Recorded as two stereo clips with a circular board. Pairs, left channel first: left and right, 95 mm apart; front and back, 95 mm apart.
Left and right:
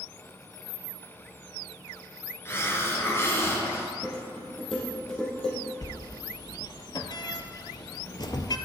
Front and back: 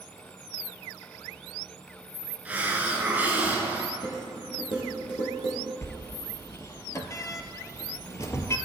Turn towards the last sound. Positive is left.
turn(degrees=55)